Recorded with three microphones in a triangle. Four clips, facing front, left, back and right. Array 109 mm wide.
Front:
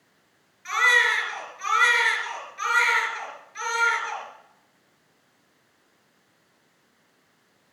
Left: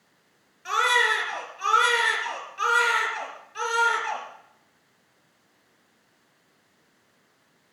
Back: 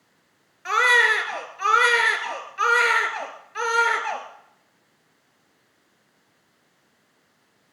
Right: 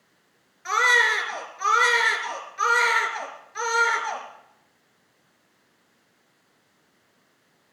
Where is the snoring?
I don't hear snoring.